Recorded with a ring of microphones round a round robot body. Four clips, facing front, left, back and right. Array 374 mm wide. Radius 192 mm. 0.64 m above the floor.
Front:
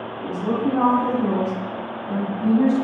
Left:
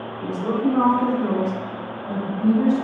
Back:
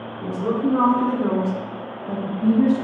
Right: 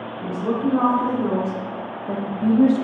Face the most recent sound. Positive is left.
turn(degrees=-85)